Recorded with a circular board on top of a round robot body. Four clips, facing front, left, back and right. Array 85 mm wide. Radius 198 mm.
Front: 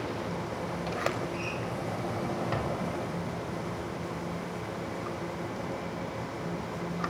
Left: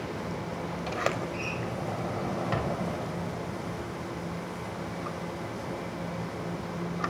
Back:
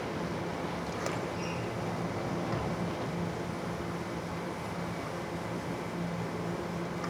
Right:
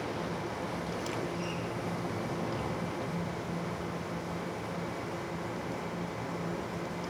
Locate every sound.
0.9 s a sliding door: 75° left, 6 m